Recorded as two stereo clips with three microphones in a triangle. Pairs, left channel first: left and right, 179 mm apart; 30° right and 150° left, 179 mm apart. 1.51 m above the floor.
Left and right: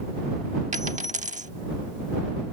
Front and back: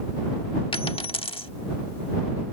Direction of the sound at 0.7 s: 75° right.